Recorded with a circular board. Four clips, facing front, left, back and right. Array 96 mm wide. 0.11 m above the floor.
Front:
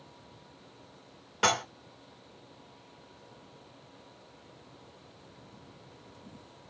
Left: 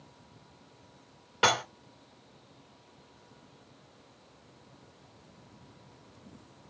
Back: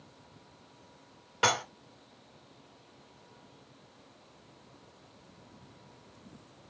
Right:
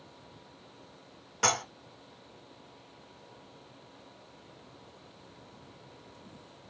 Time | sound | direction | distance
1.4 | dishes clattering | 95° left | 0.7 m